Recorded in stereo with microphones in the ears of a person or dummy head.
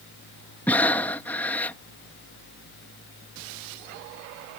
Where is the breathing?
5° left (ahead or behind).